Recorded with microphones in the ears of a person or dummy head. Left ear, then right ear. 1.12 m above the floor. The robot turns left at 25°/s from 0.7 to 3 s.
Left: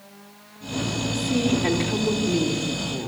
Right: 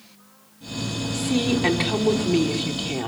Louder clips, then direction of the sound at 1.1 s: Right 1 dB; 10° right.